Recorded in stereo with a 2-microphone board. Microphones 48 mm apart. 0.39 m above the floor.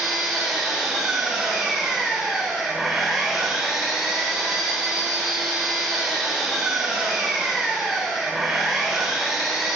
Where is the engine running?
5° right (ahead or behind), 5 m.